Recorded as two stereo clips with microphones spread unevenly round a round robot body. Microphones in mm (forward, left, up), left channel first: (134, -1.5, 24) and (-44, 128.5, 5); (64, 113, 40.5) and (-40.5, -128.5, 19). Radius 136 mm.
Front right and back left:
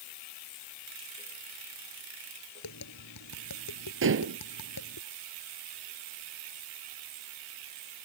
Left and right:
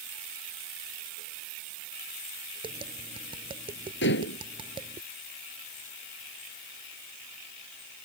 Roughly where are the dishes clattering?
Behind left.